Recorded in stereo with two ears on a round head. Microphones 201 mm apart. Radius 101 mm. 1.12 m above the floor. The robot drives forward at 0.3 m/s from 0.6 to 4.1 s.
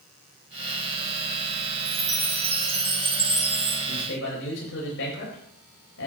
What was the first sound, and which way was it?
A chime, 15° right (ahead or behind).